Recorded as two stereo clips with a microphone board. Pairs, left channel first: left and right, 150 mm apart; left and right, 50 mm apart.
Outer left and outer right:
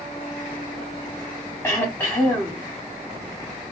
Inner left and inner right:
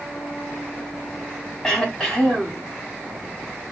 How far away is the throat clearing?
About 3 m.